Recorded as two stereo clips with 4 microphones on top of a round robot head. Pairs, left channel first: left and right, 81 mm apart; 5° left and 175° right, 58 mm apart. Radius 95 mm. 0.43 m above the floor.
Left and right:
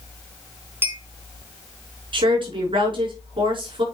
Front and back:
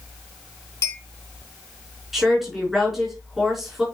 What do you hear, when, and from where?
0.8 s a clink: 30° right, 3.5 m
2.1 s a woman speaking: 85° right, 5 m